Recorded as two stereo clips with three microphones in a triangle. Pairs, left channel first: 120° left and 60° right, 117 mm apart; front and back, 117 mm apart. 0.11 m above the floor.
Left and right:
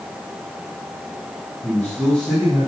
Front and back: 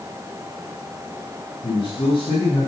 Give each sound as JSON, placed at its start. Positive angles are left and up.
{"t": 1.6, "sound": "a man speaking", "azimuth_deg": 40, "distance_m": 4.5}